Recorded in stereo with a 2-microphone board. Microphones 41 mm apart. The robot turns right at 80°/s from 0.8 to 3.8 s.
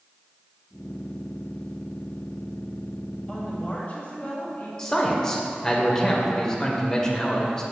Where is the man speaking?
20° left (ahead or behind), 0.8 m.